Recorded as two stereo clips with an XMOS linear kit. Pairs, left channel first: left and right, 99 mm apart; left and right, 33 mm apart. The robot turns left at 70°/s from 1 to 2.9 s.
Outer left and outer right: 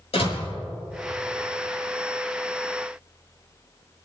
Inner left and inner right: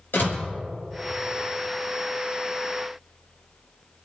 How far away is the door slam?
About 5.5 m.